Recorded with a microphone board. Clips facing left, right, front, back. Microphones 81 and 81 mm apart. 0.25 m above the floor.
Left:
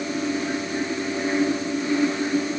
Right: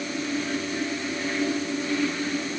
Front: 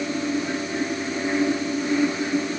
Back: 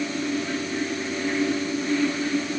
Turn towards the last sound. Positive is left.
No sound to turn to.